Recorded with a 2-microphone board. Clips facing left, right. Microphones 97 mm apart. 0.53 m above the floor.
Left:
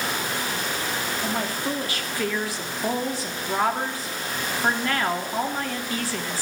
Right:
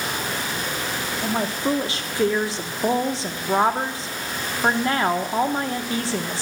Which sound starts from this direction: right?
A woman speaking, at 1.2 s.